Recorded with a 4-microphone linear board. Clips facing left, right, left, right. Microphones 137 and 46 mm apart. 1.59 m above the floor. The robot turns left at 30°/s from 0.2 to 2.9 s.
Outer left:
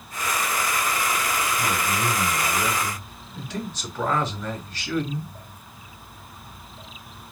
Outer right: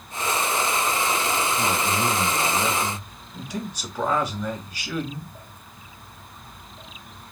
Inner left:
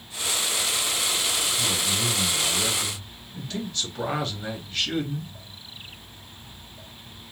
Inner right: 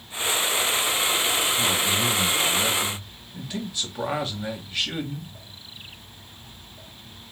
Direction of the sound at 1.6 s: 125° right.